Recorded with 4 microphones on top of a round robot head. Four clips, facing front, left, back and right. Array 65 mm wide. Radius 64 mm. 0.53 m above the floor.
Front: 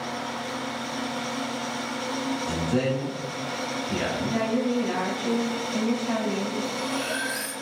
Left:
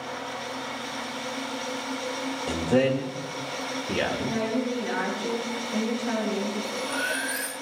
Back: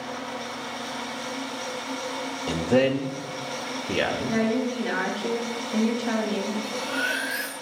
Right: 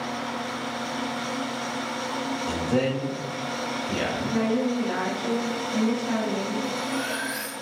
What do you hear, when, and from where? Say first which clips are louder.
2.5 s a man speaking: left 3 dB, back 6 dB; 160° left, 2.0 m
4.3 s a woman speaking: right 3 dB, even; 165° left, 8 m
6.6 s cutlery clinking: right 1 dB, back 1 dB; 155° left, 3.5 m